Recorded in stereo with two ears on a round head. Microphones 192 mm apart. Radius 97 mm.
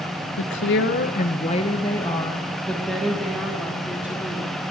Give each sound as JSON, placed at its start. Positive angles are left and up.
{"t": 0.4, "sound": "a woman speaking", "side_deg": 65, "distance_m": 0.9}